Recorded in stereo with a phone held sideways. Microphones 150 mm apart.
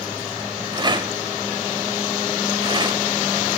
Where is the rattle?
30° right (ahead or behind), 0.7 m.